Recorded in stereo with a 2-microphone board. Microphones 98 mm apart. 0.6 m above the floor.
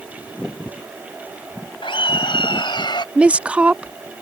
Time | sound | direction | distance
1.8 | laughter | 65° left (ahead or behind) | ?
3.1 | a woman speaking | 15° right (ahead or behind) | ?